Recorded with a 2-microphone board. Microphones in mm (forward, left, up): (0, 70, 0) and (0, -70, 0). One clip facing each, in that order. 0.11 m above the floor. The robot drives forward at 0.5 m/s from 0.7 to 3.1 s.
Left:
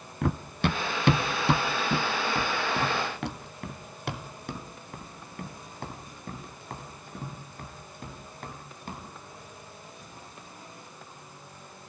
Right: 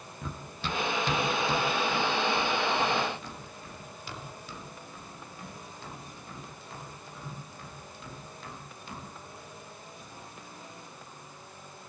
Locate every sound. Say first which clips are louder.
0.2 s running footsteps: left 10 dB; 75° left (ahead or behind), 0.9 m; by 9.0 s 50° left (ahead or behind), 6.5 m